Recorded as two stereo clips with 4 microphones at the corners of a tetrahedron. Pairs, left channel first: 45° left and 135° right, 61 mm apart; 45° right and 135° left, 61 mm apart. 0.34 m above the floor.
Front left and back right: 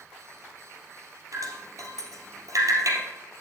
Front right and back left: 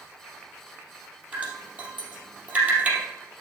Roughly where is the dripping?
Behind.